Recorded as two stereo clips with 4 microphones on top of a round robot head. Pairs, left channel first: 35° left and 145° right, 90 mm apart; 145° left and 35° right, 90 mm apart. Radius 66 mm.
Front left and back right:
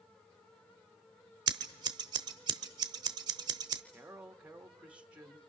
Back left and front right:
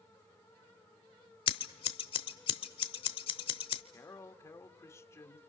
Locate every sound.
1.5 s scissors: 170° left, 0.9 m
3.9 s a man speaking: 150° left, 1.3 m